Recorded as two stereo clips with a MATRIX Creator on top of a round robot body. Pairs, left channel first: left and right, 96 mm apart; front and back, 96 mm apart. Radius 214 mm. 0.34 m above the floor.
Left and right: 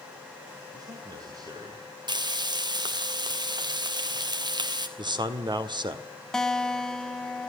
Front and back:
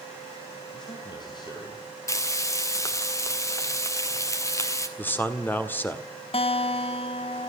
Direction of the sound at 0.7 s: 40° right.